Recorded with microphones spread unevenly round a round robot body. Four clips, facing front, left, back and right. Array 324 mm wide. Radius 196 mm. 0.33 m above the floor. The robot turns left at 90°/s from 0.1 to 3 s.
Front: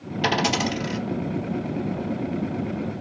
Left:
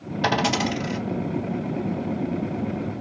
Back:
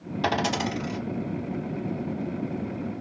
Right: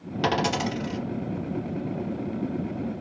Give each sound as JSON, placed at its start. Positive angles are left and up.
{"t": 0.2, "sound": "a dropped coin", "azimuth_deg": -105, "distance_m": 1.4}